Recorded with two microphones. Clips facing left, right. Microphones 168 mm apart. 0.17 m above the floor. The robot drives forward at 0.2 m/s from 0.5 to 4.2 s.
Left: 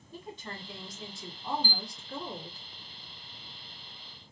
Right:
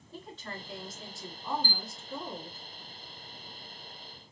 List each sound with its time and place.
0.1 s a woman speaking: 15° left (ahead or behind), 1.3 m
1.6 s a chime: 15° left (ahead or behind), 1.3 m; by 1.8 s 10° left (ahead or behind), 1.3 m